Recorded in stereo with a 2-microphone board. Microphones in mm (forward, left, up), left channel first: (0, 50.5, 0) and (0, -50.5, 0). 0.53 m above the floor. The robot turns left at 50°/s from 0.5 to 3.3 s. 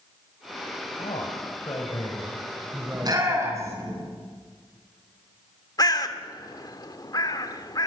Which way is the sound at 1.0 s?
80° left.